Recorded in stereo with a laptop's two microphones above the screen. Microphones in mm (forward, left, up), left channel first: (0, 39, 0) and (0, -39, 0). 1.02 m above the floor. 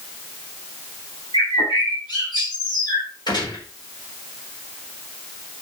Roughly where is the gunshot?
Left.